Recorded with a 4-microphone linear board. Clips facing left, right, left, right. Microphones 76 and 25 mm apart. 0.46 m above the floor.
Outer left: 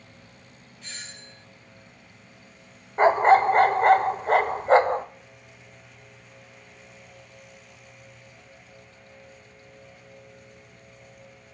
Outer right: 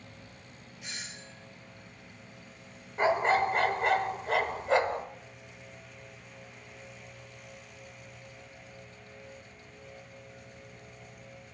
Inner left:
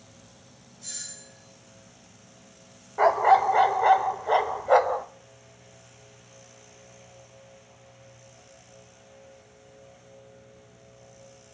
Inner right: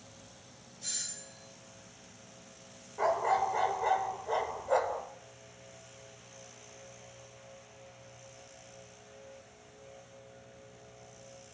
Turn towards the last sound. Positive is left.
turn(degrees=40)  # may be behind; listen again after turning